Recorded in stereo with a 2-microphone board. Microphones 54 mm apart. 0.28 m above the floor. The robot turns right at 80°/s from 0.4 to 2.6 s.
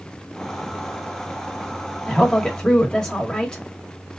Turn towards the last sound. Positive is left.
turn(degrees=15)  # may be behind; listen again after turning